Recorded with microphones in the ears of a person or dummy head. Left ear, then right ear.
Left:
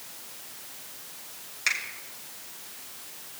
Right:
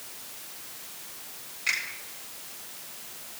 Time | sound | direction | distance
1.7 | a finger snap | 60° left (ahead or behind) | 2.5 m